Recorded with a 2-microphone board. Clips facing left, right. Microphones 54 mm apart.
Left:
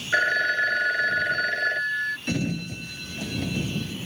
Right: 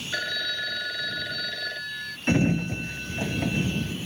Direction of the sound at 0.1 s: 45° left (ahead or behind).